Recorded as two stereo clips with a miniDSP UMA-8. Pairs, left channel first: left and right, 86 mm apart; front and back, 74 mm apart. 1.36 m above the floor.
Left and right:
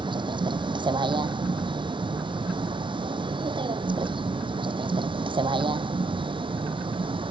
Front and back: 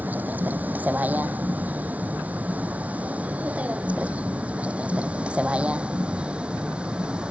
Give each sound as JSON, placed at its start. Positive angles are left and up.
{"t": 0.0, "sound": "a vehicle", "azimuth_deg": -110}